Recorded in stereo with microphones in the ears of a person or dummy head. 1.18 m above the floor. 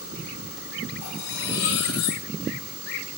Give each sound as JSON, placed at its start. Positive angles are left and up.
{"t": 1.0, "sound": "cutlery clinking", "side_deg": 75, "distance_m": 4.0}